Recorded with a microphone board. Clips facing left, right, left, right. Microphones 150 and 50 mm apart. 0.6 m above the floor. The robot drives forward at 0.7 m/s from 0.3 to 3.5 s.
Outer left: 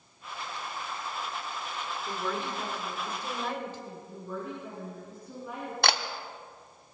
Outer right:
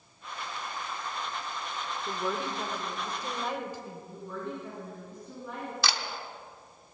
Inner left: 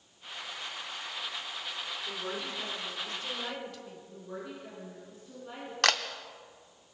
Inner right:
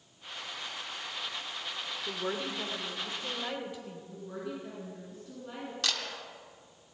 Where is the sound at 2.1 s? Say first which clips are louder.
Outer right 1 dB, inner right 5 dB; 20° right (ahead or behind), 1.5 m; by 4.0 s 10° right (ahead or behind), 2.5 m.